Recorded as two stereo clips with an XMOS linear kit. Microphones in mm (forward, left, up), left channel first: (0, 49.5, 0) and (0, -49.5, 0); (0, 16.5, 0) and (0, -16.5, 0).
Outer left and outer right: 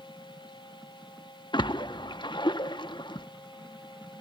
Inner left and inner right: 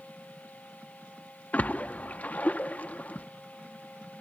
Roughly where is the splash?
Left.